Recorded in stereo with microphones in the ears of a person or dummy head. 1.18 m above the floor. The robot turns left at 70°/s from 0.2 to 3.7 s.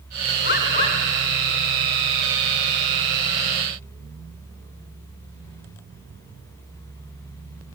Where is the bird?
55° left, 1.9 m; by 1.0 s 15° left, 1.9 m.